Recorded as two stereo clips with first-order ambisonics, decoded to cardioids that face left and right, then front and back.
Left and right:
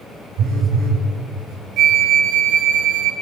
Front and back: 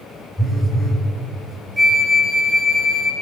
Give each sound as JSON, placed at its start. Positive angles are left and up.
{"t": 0.4, "sound": "a phone buzzing", "azimuth_deg": -75, "distance_m": 3.5}
{"t": 1.8, "sound": "a flute", "azimuth_deg": -95, "distance_m": 1.4}